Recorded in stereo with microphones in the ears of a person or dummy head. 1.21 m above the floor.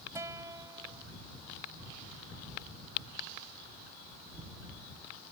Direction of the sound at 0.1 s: 15° right (ahead or behind).